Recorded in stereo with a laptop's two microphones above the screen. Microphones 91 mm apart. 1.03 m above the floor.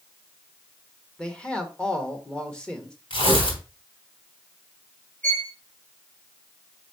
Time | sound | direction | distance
1.2 | a man speaking | 10° left (ahead or behind) | 1.9 m
3.1 | tearing paper | 80° left | 3.5 m
5.2 | a violin | 20° left (ahead or behind) | 4 m